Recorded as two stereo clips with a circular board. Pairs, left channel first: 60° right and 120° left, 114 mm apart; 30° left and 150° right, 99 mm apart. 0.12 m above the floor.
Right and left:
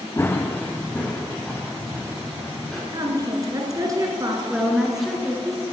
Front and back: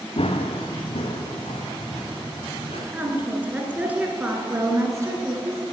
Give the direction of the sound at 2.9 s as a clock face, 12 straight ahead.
7 o'clock.